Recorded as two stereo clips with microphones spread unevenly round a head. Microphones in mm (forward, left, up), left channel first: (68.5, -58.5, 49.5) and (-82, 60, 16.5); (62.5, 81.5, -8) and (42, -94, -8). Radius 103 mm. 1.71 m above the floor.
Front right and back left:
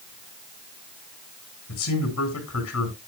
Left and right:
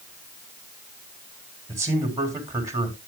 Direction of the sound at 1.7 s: 25° right.